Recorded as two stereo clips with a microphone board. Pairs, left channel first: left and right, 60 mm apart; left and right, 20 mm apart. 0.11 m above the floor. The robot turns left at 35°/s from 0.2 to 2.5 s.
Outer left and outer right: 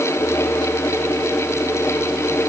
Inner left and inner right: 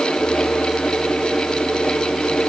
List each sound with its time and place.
Only background noise.